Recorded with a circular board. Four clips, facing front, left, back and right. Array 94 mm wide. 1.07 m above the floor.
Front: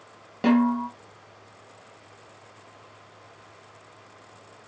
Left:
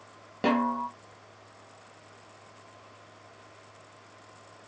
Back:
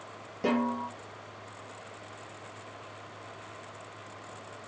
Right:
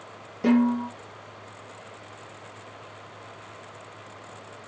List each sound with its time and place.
0.4 s a snare drum: 45° left, 1.1 m